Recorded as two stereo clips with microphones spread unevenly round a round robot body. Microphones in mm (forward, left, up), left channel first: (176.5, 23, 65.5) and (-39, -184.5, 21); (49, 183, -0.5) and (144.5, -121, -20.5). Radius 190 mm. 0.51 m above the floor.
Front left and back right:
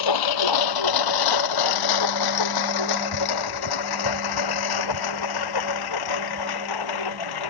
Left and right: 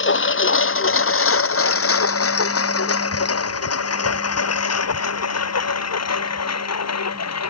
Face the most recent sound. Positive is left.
turn(degrees=70)